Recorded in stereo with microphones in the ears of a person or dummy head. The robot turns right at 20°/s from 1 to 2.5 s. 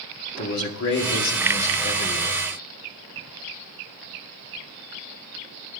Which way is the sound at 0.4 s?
70° left (ahead or behind).